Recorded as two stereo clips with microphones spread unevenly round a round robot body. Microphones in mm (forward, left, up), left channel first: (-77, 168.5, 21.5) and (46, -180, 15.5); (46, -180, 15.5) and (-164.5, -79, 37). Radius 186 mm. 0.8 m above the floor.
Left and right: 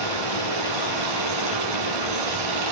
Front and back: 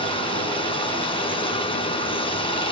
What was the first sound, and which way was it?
Running water, 95° right.